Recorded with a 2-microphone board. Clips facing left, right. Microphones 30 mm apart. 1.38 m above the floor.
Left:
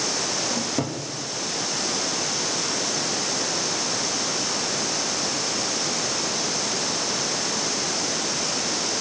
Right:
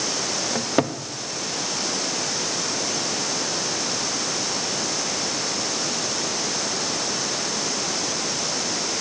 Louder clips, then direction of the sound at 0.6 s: Right 4 dB; 45° right (ahead or behind).